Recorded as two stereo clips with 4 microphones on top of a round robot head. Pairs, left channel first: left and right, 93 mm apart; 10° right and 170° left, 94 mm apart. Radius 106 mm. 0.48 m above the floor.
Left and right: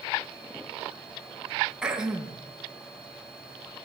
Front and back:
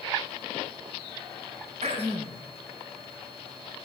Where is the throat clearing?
175° right, 4.5 m.